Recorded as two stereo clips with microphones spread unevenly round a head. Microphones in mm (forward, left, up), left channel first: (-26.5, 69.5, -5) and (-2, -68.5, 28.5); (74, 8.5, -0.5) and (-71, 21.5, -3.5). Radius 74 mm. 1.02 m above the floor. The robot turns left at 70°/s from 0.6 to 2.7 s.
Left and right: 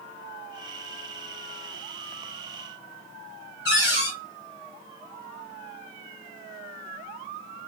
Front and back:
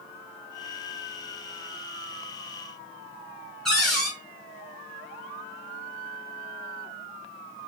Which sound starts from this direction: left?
A cupboard door, at 3.6 s.